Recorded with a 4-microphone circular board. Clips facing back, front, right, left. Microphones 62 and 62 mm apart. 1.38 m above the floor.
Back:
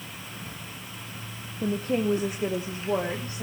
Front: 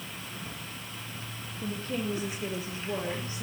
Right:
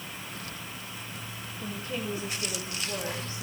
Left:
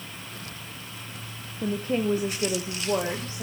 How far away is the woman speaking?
About 0.8 m.